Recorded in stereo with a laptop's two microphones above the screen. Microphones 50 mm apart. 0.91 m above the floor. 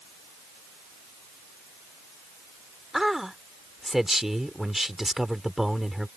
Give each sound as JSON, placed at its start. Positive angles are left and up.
{"t": 2.9, "sound": "a man speaking", "side_deg": -10}